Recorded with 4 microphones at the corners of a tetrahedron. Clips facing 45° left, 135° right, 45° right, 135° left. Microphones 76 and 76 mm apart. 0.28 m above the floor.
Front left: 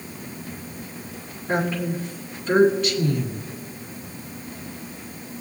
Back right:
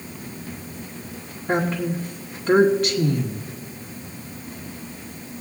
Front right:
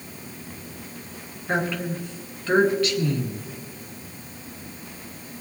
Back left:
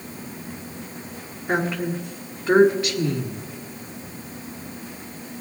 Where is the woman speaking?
155° right, 3 m.